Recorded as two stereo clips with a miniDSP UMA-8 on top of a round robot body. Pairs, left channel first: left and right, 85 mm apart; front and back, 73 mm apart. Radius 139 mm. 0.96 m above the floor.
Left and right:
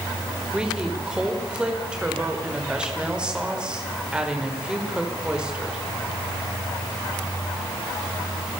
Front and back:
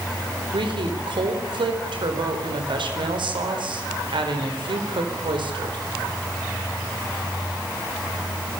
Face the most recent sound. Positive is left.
turn(degrees=-170)